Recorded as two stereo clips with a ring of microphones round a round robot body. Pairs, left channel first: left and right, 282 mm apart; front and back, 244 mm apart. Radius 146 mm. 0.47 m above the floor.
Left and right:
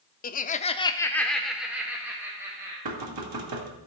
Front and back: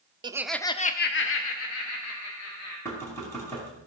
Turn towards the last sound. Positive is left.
turn(degrees=-80)